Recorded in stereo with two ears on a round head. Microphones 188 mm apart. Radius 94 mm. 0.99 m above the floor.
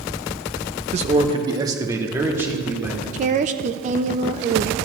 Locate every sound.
0.9 s a man speaking: 35° right (ahead or behind), 0.7 m; by 3.0 s 10° right (ahead or behind), 2.5 m
3.1 s a woman speaking: 35° right (ahead or behind), 0.6 m